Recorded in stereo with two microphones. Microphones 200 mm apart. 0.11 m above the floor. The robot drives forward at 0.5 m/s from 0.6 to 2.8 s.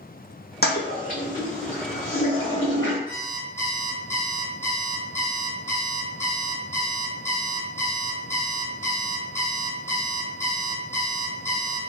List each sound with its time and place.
0.6 s a toilet flushing: 55° left (ahead or behind), 0.8 m; by 3.0 s 25° left (ahead or behind), 1.7 m
3.1 s an alarm clock: 15° left (ahead or behind), 1.6 m